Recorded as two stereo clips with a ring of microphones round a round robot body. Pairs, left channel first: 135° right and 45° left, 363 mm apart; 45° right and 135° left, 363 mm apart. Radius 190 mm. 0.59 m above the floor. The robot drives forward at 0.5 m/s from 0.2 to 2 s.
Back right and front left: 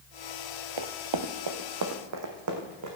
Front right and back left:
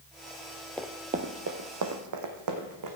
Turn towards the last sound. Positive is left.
turn(degrees=95)